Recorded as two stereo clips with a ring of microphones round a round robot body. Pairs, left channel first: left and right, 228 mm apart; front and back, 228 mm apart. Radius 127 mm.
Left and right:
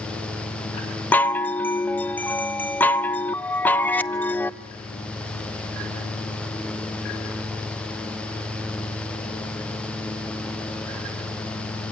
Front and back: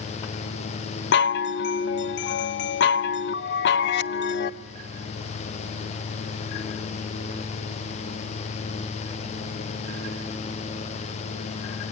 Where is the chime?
10° left, 0.7 m.